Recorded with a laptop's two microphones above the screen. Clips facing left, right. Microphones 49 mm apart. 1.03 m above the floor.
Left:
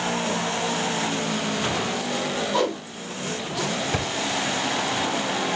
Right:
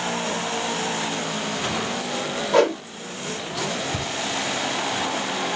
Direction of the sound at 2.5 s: 70° right (ahead or behind).